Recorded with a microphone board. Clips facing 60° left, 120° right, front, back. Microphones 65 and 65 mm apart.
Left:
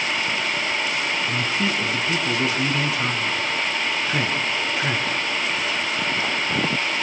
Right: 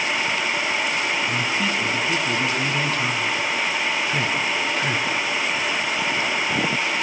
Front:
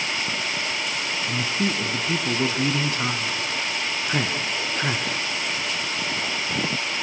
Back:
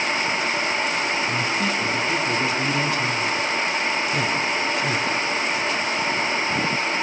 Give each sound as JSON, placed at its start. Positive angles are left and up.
{"t": 1.3, "sound": "a man speaking", "azimuth_deg": -15, "distance_m": 2.0}